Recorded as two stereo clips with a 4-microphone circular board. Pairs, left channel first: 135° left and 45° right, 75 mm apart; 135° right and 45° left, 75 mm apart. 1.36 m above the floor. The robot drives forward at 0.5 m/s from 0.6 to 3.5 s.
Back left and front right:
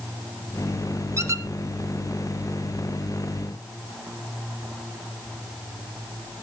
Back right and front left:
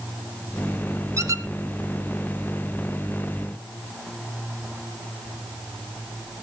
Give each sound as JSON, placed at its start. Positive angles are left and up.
{"t": 1.2, "sound": "a squeak", "azimuth_deg": 0, "distance_m": 1.2}